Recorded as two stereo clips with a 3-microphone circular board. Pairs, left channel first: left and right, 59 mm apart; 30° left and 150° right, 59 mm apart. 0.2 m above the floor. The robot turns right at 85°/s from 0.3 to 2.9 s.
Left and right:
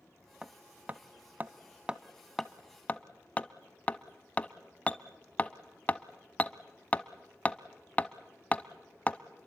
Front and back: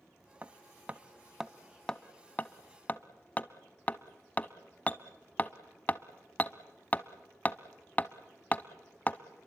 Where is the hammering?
160° right, 0.7 m; by 9.2 s 55° left, 0.7 m.